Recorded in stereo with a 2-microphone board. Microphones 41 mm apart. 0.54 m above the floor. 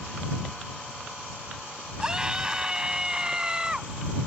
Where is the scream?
20° right (ahead or behind).